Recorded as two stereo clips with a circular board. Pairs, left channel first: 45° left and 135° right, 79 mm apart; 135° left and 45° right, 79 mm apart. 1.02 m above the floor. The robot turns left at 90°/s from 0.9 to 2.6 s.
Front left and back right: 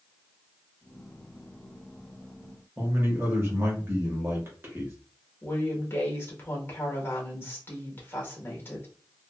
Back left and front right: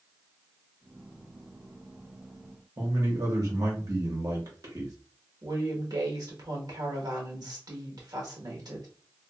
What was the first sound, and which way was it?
A man speaking, 80° right.